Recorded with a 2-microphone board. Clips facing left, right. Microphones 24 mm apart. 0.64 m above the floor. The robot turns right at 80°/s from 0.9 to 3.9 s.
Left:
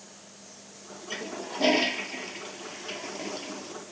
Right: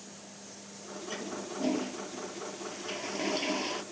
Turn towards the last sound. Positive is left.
turn(degrees=-110)